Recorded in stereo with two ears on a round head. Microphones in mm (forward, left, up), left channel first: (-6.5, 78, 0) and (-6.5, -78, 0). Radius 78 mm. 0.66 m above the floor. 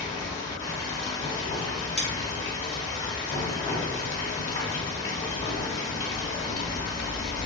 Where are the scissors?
5° left (ahead or behind), 0.9 m.